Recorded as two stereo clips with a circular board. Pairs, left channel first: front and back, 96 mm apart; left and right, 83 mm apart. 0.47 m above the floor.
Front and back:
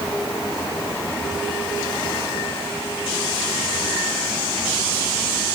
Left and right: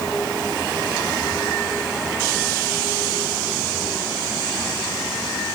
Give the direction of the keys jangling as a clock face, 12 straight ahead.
I don't hear keys jangling.